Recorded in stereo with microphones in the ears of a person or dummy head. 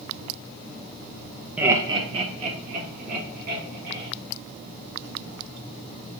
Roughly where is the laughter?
Centre.